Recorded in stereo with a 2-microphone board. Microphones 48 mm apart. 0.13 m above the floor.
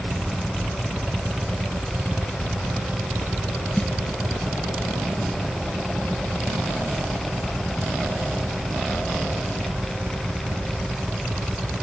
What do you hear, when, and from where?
3.8 s a snare drum: 45° left (ahead or behind)